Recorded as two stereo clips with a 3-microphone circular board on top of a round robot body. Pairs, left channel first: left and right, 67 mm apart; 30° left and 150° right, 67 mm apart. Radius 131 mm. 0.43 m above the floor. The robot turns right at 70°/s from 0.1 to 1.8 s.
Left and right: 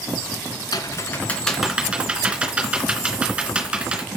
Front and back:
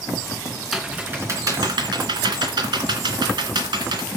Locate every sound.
0.7 s typing on a keyboard: 120° left, 3 m; by 4.1 s 165° right, 3 m